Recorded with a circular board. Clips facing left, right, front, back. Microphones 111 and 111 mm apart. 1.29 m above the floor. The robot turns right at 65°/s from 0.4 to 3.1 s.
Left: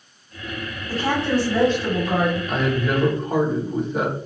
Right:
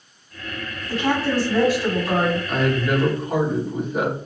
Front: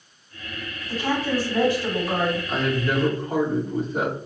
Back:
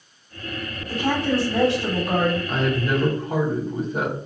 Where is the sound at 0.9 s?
130° left, 1.5 m; by 2.4 s 130° right, 1.5 m.